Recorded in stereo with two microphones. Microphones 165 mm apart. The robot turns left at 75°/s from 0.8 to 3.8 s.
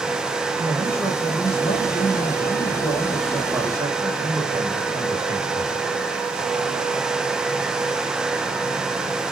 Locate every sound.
0.6 s a man speaking: 160° right, 4.5 m; by 5.9 s 25° right, 4.5 m